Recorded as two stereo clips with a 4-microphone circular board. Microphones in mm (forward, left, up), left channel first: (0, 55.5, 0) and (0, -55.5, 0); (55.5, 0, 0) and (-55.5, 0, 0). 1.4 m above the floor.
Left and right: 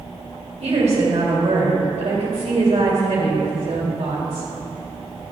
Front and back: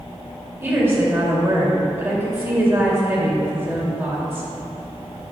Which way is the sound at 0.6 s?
110° right.